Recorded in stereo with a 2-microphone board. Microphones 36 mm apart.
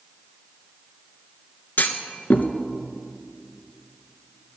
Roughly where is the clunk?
Left.